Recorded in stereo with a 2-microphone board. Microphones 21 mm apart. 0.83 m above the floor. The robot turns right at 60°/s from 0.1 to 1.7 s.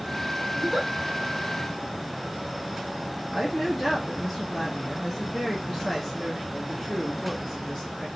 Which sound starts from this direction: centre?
A woman speaking, at 3.3 s.